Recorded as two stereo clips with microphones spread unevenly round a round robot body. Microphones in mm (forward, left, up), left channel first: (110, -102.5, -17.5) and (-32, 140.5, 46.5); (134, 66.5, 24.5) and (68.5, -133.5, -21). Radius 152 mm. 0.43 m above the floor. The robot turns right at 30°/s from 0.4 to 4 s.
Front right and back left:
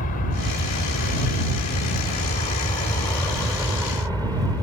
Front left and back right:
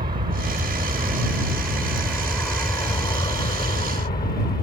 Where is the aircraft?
75° right; by 4.6 s 35° left.